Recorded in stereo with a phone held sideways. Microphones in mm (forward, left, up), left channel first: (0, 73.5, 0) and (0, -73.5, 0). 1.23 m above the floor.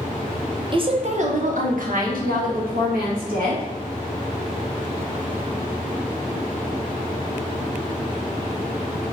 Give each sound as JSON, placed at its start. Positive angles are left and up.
{"t": 0.7, "sound": "a woman speaking", "side_deg": -35, "distance_m": 0.7}